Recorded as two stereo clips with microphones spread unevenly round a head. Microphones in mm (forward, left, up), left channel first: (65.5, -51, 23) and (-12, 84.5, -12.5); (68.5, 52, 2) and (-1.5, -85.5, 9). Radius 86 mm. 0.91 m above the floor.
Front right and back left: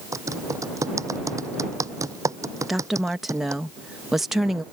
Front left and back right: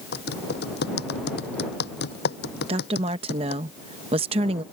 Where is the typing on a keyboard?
50° left.